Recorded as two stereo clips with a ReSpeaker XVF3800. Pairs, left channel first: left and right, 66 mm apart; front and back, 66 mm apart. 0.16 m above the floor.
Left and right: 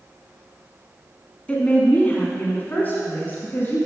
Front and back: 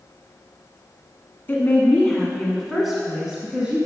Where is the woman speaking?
35° left, 1.4 m; by 3.8 s 120° left, 1.5 m.